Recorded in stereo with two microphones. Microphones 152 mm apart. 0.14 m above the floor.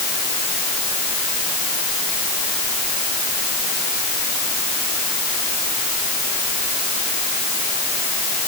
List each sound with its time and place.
Only background noise.